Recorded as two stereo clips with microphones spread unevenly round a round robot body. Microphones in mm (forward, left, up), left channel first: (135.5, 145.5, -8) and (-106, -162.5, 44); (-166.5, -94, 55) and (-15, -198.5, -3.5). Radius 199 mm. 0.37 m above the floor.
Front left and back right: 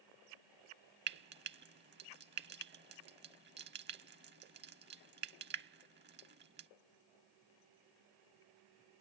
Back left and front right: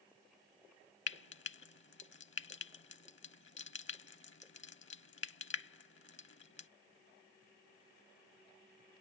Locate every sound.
1.1 s frying: 165° left